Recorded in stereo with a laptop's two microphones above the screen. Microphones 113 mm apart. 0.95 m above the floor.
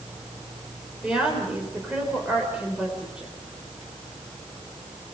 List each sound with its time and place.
0.0 s a fan: 80° right, 3.5 m
1.0 s a woman speaking: 5° right (ahead or behind), 4.5 m